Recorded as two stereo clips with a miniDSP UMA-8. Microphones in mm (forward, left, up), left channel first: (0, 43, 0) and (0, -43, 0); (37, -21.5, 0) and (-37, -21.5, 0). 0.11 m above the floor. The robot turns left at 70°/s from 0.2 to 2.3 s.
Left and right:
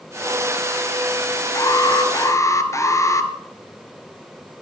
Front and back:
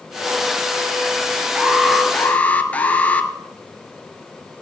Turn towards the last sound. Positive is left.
turn(degrees=60)